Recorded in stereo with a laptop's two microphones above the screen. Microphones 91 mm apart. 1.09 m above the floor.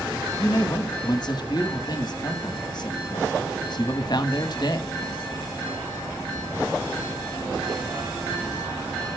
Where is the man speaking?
50° left (ahead or behind), 1.6 m.